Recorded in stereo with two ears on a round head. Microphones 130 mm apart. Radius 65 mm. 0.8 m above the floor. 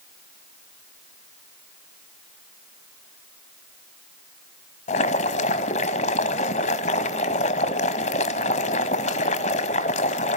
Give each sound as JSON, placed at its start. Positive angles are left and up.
{"t": 4.9, "sound": "boiling", "side_deg": 50, "distance_m": 1.3}